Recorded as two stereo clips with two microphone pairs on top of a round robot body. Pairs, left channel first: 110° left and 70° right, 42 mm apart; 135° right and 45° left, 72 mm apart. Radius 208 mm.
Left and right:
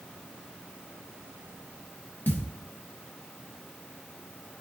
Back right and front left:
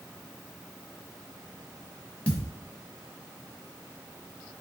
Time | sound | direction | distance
2.3 | a thud | 150° left | 1.1 m